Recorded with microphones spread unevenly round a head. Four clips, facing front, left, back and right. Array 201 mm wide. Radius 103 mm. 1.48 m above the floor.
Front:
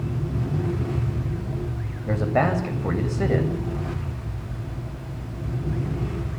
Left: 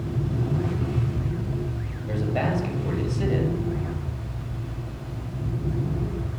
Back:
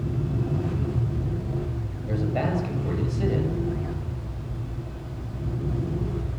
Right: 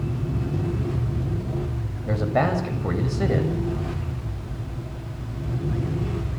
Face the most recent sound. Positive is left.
turn(degrees=-25)